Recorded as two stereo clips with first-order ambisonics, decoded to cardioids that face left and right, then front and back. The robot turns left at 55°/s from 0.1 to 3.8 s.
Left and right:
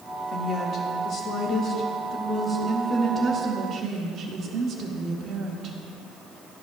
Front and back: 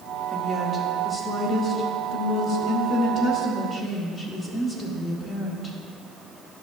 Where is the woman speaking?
135° left, 0.9 m; by 5.8 s 60° right, 0.9 m.